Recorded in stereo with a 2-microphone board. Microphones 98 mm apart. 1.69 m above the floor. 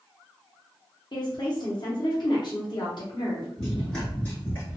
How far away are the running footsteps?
About 1.7 m.